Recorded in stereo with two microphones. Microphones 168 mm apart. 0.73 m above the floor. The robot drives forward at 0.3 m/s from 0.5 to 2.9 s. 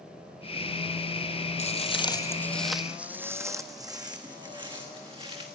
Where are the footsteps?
40° left (ahead or behind), 0.9 m; by 5.5 s 30° right (ahead or behind), 3 m.